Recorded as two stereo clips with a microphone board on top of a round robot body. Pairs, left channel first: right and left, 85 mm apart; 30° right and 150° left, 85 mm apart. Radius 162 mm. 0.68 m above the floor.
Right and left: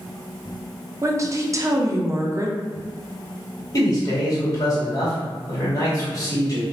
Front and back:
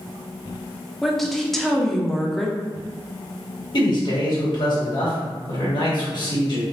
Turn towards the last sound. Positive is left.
turn(degrees=-45)